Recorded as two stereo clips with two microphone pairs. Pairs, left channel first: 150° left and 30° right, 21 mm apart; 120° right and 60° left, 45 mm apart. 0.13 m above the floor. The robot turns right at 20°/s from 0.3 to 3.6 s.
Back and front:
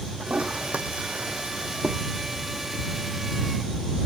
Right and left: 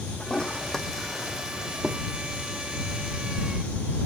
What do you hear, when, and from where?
0.2 s a toilet flushing: 50° right; by 2.0 s 15° right